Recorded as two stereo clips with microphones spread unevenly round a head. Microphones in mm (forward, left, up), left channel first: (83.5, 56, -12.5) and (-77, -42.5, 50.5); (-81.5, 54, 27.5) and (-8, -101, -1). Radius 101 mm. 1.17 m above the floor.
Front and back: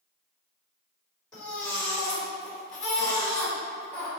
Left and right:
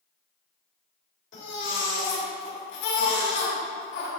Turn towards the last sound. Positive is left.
turn(degrees=115)